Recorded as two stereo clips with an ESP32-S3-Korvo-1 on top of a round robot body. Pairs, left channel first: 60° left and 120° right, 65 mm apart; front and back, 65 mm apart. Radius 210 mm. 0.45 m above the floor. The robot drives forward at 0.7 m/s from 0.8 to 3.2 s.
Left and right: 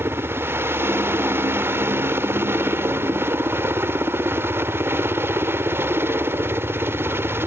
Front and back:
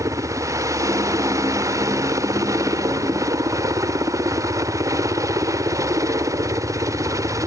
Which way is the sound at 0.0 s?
165° right.